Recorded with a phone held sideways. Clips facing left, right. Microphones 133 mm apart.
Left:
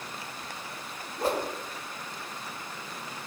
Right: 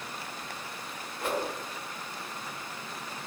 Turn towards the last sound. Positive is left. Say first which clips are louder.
# left 3 dB
turn(degrees=35)  # may be behind; listen again after turning